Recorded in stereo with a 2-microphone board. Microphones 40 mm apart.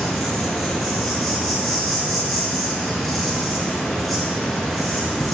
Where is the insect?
Centre (ahead or behind), 1.9 m.